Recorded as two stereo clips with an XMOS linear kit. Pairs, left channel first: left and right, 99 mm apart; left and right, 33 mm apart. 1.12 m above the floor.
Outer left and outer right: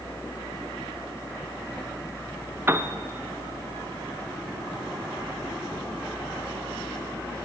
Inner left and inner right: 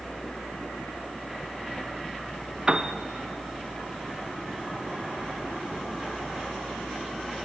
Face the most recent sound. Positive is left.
turn(degrees=-20)  # may be behind; listen again after turning